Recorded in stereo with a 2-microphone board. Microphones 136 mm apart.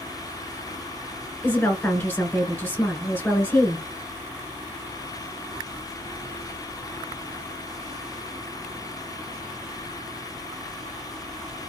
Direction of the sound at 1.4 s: 10° left (ahead or behind).